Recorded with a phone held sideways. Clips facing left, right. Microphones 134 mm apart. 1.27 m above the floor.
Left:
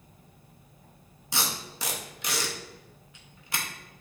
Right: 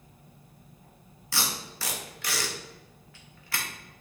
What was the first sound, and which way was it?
Tape being pulled, 20° left (ahead or behind).